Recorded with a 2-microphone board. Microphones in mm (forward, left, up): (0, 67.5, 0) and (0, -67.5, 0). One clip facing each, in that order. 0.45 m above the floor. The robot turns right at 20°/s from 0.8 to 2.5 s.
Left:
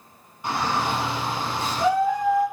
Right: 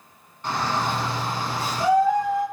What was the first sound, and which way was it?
A shout, 170° left.